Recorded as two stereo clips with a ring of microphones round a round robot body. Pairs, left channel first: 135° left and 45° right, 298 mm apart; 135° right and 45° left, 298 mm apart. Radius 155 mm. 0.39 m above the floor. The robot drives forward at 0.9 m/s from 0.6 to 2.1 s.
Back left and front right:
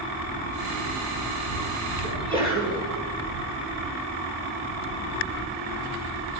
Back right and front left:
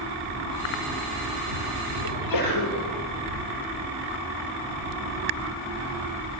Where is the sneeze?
120° right, 10 m.